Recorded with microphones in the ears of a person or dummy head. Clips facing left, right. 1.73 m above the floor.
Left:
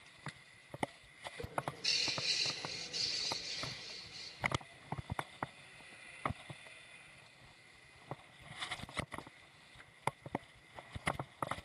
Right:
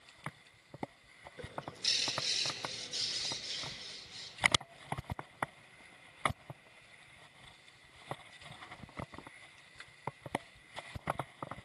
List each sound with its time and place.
1.4 s a bird: 50° right (ahead or behind), 8 m